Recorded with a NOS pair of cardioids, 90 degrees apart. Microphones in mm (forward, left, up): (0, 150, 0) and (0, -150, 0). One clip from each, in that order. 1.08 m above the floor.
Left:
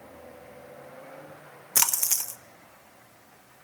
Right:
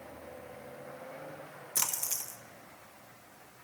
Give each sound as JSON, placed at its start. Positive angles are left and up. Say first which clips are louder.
{"t": 1.8, "sound": "a splash", "louder": "left 9 dB", "azimuth_deg": 45, "distance_m": 0.8}